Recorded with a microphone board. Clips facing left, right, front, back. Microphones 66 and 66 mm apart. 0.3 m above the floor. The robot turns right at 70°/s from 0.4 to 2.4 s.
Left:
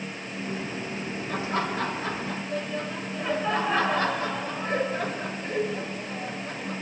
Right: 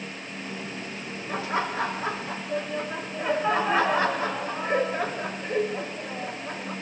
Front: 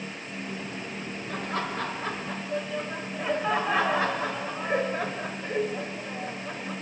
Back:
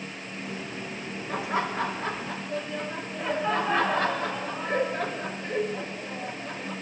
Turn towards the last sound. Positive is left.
turn(degrees=-65)